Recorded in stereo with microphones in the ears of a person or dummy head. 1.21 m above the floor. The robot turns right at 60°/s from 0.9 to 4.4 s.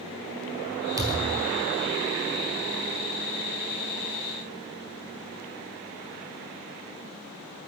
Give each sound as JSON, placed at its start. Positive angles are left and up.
{"t": 1.0, "sound": "a thud", "azimuth_deg": -165, "distance_m": 2.0}